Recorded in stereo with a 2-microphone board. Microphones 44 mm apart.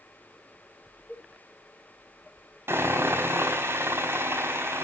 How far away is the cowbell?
About 8.5 m.